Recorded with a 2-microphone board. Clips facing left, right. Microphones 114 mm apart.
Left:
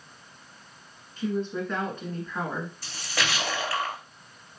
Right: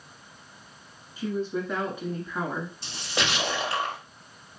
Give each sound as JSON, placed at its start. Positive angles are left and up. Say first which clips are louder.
{"t": 1.2, "sound": "a woman speaking", "louder": "even", "side_deg": -10, "distance_m": 1.2}
{"t": 2.8, "sound": "a splash", "louder": "right 3 dB", "side_deg": -25, "distance_m": 1.5}